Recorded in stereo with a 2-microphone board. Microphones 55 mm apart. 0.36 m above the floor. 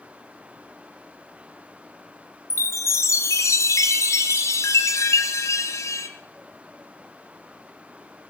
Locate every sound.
2.5 s a chime: 70° left (ahead or behind), 1.7 m